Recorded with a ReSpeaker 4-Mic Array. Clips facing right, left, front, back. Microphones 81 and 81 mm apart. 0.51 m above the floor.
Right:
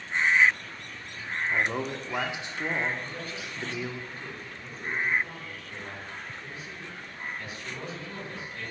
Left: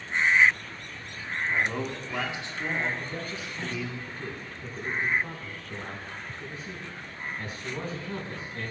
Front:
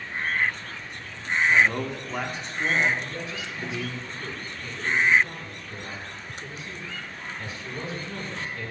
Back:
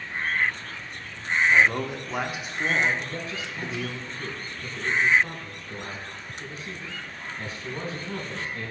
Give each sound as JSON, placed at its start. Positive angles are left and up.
{"t": 1.5, "sound": "a man speaking", "azimuth_deg": -110, "distance_m": 0.8}
{"t": 3.0, "sound": "a man speaking", "azimuth_deg": 140, "distance_m": 3.5}